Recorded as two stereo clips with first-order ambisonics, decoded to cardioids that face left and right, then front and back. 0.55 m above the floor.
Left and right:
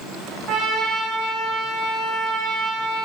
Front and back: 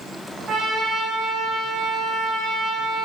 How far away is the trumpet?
About 3.5 m.